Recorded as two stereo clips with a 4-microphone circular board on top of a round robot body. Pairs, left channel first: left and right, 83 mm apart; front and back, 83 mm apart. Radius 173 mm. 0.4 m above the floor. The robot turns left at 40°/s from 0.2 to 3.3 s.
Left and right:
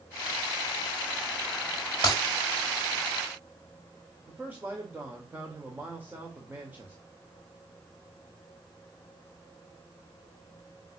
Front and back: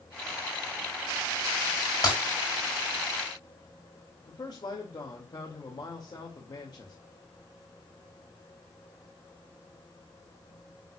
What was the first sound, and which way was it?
Breaking glass, 45° left.